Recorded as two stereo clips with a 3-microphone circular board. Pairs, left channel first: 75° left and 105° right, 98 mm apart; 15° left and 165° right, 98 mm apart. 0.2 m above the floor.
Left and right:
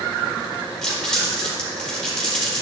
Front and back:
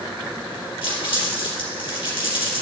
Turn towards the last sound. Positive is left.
turn(degrees=-10)